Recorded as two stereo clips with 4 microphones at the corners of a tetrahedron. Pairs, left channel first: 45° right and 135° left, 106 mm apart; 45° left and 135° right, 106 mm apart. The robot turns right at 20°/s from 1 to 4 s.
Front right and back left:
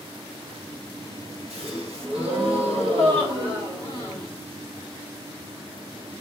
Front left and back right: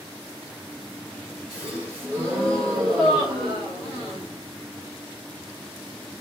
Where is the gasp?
140° left, 1.5 m; by 4.3 s 170° right, 1.5 m.